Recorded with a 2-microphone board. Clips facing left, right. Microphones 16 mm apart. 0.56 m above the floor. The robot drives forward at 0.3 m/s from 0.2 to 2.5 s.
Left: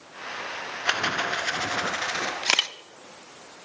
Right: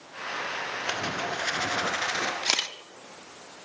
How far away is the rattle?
About 1.0 m.